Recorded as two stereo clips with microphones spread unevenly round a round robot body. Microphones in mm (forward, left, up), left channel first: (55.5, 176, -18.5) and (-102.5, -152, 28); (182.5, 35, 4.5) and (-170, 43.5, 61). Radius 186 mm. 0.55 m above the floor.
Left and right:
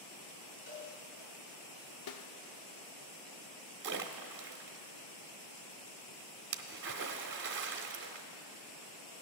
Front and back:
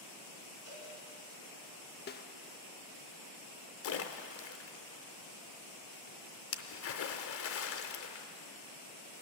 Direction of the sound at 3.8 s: 50° right.